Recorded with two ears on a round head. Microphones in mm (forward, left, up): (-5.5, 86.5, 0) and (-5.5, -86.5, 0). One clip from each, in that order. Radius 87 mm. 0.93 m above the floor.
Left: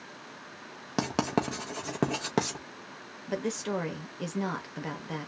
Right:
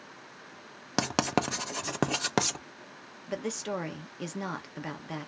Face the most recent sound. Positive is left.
turn(degrees=-15)  # may be behind; listen again after turning